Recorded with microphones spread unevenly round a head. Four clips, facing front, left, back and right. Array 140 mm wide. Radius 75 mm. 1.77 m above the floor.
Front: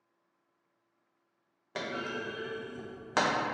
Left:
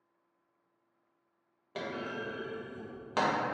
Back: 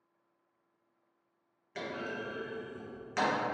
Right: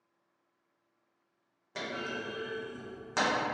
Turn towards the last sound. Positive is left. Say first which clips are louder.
# even, front 2 dB
turn(degrees=20)